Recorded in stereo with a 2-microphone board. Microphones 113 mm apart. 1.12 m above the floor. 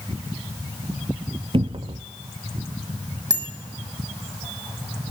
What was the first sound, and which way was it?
A cupboard door, 50° right (ahead or behind).